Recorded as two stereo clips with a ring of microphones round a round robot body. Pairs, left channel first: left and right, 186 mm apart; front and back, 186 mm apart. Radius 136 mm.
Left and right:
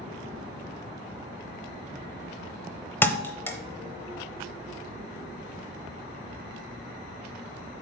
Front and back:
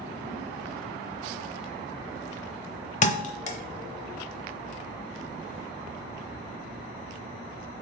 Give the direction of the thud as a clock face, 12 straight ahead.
11 o'clock.